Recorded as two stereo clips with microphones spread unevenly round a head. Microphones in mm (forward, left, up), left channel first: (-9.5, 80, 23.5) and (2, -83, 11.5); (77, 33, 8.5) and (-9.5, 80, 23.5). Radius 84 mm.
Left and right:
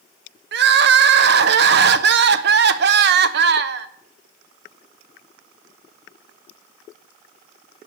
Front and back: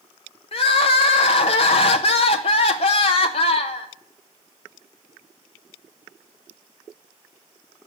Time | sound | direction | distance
0.5 | crying | 65° right | 0.8 m